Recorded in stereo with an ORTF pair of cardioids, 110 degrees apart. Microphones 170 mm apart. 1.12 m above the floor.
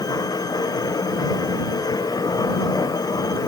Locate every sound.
0.0 s a machine running: 20° left